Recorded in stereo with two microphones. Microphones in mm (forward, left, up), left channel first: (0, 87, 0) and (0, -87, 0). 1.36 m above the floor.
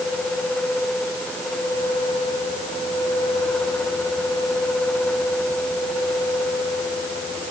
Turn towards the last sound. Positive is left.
No sound to turn to.